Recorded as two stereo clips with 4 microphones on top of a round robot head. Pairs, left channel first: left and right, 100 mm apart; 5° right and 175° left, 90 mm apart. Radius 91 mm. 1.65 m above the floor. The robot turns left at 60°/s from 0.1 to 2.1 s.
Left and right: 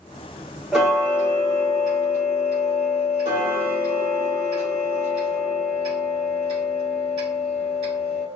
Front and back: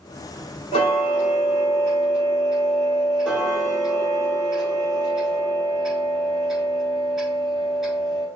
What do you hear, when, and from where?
0.7 s ticking: 10° right, 1.6 m; by 8.2 s 95° right, 1.6 m